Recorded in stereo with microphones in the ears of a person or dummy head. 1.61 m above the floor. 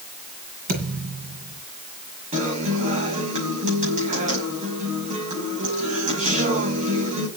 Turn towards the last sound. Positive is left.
turn(degrees=-40)  # may be behind; listen again after turning